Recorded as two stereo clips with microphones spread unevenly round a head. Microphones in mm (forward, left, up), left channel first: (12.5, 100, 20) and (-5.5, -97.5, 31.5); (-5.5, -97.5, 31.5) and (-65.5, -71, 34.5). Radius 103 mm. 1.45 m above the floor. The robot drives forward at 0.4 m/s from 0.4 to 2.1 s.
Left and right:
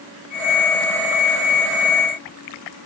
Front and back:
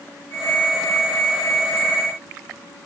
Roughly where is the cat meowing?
I don't hear a cat meowing.